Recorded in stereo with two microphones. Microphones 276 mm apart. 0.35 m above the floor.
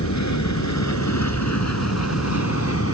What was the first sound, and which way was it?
An aircraft, 75° left (ahead or behind).